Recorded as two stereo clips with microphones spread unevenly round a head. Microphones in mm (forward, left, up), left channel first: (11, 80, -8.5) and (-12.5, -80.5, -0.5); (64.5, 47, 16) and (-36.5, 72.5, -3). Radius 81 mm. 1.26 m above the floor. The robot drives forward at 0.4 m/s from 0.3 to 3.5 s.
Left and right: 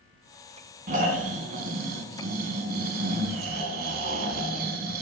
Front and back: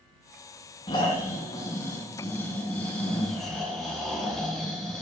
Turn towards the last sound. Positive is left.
turn(degrees=-95)